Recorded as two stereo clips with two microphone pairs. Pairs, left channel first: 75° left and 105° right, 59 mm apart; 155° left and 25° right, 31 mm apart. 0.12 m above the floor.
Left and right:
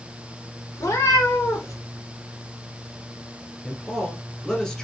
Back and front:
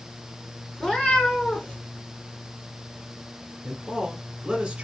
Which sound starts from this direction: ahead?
A man speaking, at 3.6 s.